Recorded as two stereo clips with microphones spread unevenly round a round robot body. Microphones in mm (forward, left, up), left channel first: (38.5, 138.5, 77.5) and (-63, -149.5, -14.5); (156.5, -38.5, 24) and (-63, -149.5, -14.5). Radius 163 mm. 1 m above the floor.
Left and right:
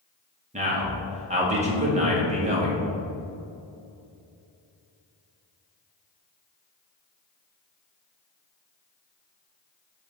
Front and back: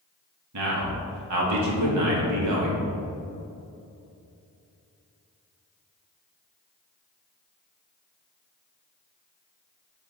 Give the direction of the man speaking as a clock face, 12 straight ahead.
6 o'clock.